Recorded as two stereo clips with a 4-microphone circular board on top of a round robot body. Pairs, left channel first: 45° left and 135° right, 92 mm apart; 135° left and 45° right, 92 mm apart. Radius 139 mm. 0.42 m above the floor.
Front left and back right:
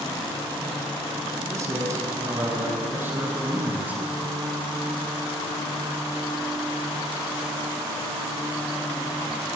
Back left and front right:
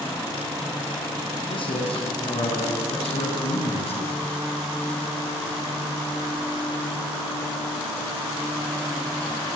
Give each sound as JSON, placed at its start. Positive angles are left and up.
{"t": 1.5, "sound": "a man speaking", "azimuth_deg": 165, "distance_m": 5.5}